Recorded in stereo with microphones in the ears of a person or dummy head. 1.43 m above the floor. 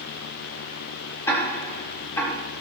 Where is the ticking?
15° left (ahead or behind), 4 m.